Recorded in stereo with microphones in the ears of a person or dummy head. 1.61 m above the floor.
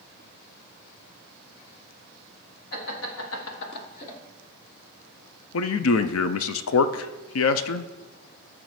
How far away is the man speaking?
About 0.5 m.